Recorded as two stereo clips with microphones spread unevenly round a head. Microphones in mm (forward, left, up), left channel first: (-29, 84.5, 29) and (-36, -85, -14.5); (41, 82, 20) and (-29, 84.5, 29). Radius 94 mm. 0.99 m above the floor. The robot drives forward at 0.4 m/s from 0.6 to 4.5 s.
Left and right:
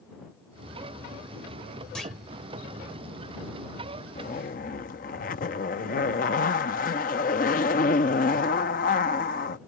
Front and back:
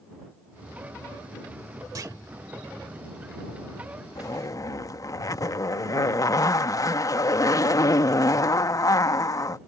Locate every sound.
1.9 s a clunk: 165° left
4.2 s a zipper: 35° left